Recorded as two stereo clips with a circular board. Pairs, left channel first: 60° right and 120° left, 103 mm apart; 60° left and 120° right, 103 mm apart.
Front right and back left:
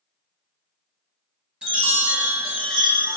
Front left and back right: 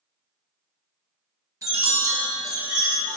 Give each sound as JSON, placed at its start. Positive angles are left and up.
{"t": 1.6, "sound": "a chime", "azimuth_deg": -160, "distance_m": 0.9}